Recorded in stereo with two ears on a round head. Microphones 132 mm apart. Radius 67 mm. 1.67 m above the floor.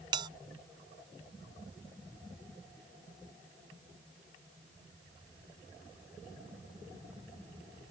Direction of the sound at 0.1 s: 30° right (ahead or behind).